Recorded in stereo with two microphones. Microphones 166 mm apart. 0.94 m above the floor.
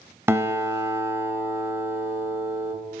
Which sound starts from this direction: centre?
A guitar, at 0.3 s.